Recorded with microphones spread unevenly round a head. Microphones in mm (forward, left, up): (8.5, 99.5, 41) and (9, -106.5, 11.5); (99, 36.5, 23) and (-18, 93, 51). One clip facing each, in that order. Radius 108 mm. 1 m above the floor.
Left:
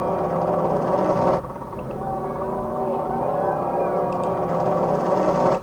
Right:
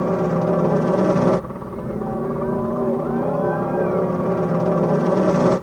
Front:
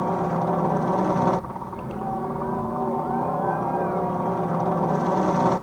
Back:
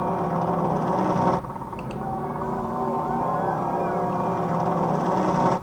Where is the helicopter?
100° right.